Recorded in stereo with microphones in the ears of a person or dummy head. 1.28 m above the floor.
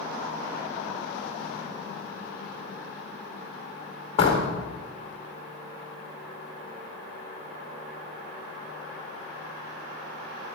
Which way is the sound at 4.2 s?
35° left (ahead or behind).